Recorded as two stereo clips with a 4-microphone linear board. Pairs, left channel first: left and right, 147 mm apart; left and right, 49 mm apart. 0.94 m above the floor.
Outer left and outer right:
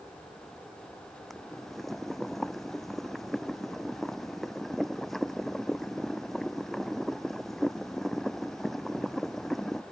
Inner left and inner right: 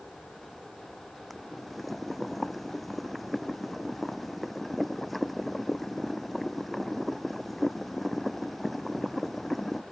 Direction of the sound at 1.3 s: Centre (ahead or behind).